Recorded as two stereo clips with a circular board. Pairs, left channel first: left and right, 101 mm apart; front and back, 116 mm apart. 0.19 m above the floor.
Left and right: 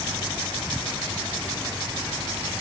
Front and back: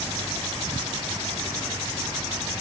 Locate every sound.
Only background noise.